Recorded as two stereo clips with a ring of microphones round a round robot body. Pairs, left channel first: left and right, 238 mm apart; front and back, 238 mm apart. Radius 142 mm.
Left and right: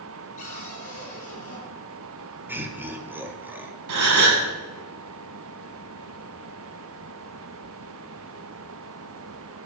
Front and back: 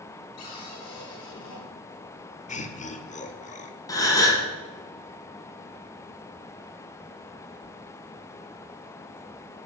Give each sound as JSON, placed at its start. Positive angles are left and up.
{"t": 0.4, "sound": "a cupboard door", "azimuth_deg": 25, "distance_m": 4.0}
{"t": 2.5, "sound": "laughter", "azimuth_deg": -15, "distance_m": 1.3}
{"t": 3.9, "sound": "a gasp", "azimuth_deg": -75, "distance_m": 2.0}